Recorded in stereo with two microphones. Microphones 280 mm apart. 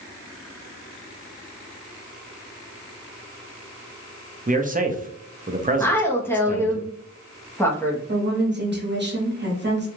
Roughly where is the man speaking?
Right.